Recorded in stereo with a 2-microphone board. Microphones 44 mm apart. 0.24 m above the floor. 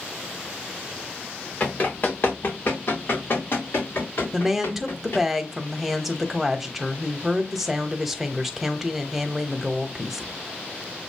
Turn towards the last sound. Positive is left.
turn(degrees=-5)  # may be behind; listen again after turning